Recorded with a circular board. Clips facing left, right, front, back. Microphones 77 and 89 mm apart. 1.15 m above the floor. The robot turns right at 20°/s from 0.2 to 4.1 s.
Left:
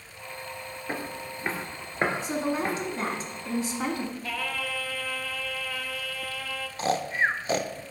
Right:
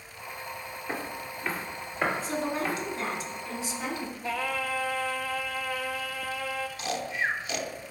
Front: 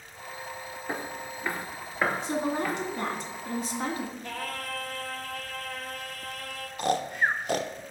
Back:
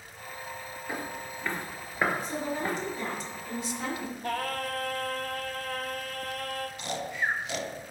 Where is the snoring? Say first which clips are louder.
Left 8 dB, front 9 dB; 40° left, 0.5 m.